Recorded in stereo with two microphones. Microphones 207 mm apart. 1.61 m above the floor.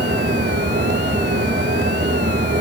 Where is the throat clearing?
No throat clearing in this recording.